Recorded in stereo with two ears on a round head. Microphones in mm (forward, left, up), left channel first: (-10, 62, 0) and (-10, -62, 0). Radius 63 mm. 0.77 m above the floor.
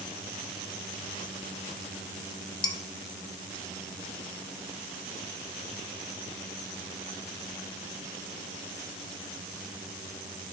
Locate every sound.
2.6 s dishes clattering: 30° left (ahead or behind), 0.6 m